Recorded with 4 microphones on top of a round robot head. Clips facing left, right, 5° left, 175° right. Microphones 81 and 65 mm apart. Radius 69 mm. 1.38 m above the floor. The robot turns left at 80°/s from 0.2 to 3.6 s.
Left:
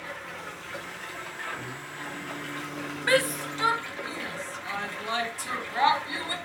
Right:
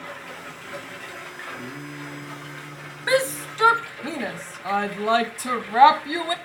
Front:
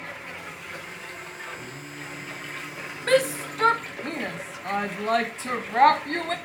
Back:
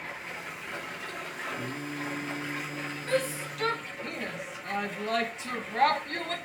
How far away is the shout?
About 0.6 m.